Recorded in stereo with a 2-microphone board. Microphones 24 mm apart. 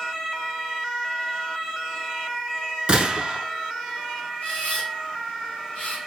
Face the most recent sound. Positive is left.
turn(degrees=75)  # may be behind; listen again after turning